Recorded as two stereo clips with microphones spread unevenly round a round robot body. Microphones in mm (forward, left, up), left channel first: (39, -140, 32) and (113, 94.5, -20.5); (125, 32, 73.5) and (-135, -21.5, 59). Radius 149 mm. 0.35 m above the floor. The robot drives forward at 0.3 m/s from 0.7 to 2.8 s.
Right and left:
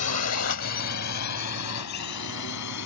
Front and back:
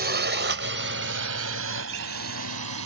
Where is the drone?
130° right; by 2.9 s 140° right.